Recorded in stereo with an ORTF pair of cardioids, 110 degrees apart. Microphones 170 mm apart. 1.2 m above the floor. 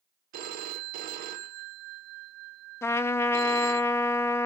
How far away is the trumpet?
About 0.7 m.